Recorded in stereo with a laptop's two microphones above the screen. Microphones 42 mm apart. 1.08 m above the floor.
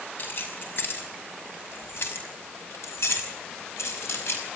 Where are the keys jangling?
50° left (ahead or behind), 5.5 m; by 4.4 s 85° left, 5 m.